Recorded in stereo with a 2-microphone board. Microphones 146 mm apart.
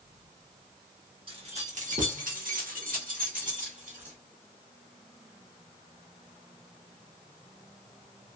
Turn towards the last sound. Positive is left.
turn(degrees=-60)  # may be behind; listen again after turning